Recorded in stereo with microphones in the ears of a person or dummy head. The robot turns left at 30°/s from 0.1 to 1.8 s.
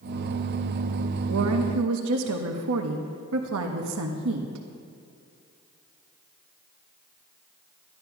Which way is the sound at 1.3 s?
75° right (ahead or behind).